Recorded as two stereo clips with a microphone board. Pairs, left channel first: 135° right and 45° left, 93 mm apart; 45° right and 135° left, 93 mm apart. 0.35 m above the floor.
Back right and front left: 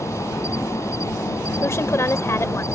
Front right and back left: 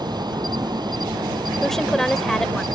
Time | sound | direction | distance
0.0 | an insect | 170° left | ?
1.6 | a woman speaking | 125° right | ?